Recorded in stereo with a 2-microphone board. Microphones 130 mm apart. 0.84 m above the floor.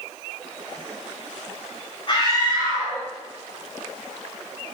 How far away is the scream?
About 5 m.